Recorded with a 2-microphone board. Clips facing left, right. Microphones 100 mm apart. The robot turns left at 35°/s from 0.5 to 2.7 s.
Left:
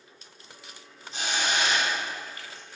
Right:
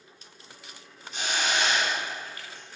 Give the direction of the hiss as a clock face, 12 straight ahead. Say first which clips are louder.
Even; 11 o'clock.